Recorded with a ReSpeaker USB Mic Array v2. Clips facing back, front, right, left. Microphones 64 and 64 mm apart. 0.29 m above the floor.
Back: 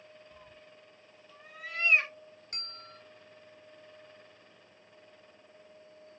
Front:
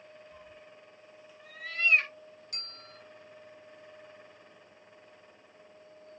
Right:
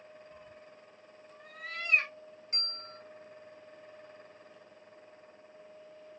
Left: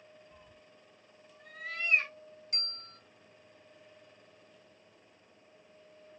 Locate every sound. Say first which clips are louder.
0.3 s a cat meowing: front 2 dB, right 6 dB; 165° right, 0.8 m; by 2.1 s 100° right, 0.9 m
2.5 s a bell: back 1 dB, right 3 dB; 145° right, 1.8 m